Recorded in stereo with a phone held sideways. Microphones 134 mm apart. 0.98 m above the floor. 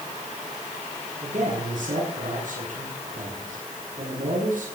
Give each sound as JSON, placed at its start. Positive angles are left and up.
{"t": 1.2, "sound": "a man speaking", "side_deg": -80, "distance_m": 8.5}